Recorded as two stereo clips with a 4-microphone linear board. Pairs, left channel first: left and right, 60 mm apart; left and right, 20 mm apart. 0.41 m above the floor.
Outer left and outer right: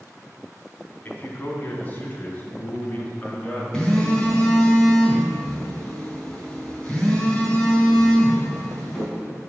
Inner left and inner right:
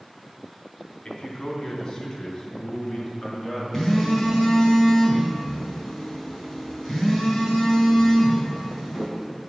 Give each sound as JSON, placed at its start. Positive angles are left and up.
{"t": 1.1, "sound": "a man speaking", "side_deg": 35, "distance_m": 3.0}
{"t": 3.7, "sound": "a phone buzzing", "side_deg": 10, "distance_m": 4.0}